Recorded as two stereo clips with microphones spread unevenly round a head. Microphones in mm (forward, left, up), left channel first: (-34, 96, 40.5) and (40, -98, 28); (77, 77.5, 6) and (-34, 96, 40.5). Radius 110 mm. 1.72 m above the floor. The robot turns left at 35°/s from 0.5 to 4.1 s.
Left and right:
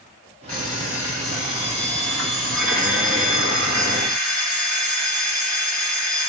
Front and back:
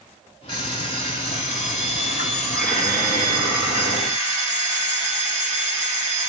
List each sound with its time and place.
0.5 s an alarm clock: 30° left, 1.2 m; by 6.3 s 95° right, 1.2 m